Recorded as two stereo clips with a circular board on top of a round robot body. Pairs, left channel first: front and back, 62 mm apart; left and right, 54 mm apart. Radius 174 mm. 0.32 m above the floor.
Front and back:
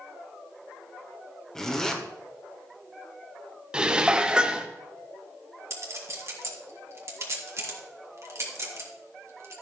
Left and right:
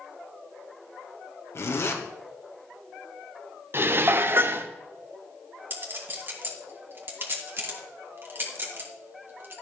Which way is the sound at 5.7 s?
140° right.